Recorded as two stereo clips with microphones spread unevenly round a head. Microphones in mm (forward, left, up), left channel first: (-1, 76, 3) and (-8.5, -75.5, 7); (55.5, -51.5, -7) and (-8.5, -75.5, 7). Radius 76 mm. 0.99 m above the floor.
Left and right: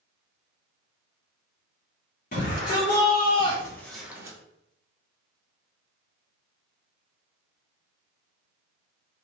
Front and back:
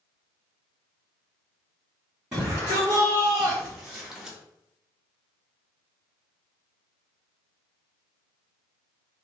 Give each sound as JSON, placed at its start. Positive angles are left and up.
{"t": 2.3, "sound": "a shout", "azimuth_deg": 105, "distance_m": 1.5}